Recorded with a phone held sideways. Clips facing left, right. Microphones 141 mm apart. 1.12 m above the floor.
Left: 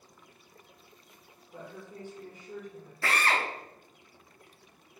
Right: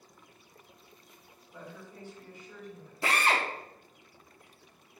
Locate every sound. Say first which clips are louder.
1.5 s a woman speaking: left 3 dB; 45° left (ahead or behind), 1.7 m
3.0 s a drill: right 1 dB; 20° right (ahead or behind), 0.7 m